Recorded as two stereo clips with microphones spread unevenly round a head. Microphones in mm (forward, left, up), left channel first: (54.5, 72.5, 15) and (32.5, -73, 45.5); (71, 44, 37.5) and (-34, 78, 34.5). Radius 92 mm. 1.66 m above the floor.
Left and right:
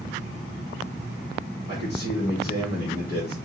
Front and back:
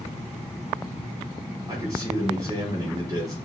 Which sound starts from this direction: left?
A man speaking, at 1.7 s.